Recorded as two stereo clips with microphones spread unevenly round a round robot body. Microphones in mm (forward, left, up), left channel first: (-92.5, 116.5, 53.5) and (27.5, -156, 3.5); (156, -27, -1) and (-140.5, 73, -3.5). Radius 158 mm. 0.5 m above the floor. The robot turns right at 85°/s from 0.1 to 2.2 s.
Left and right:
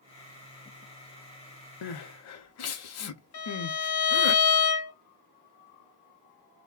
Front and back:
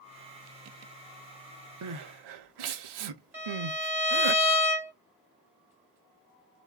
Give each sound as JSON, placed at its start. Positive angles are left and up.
{"t": 1.8, "sound": "crying", "azimuth_deg": 120, "distance_m": 0.5}
{"t": 3.3, "sound": "a violin", "azimuth_deg": 75, "distance_m": 1.4}